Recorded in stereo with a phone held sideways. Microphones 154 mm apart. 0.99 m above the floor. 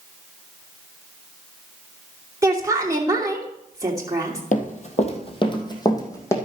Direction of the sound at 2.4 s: 20° right (ahead or behind).